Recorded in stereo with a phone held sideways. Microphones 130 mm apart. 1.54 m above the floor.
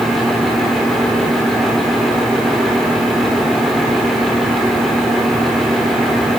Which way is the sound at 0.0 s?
Centre (ahead or behind).